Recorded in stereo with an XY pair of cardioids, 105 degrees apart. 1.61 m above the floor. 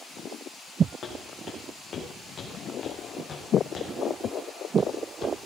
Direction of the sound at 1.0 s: 45° left.